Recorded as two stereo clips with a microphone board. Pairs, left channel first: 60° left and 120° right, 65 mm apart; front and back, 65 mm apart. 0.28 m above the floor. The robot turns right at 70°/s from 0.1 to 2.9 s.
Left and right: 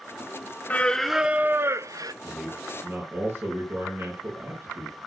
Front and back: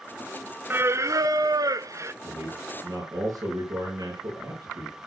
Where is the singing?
125° left, 0.6 m; by 2.1 s 135° right, 0.6 m.